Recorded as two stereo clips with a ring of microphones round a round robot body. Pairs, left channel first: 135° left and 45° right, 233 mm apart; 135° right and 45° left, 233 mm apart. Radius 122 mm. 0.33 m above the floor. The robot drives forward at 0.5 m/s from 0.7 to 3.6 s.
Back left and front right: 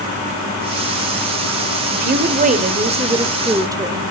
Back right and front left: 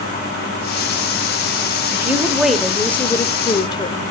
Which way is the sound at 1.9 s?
30° right.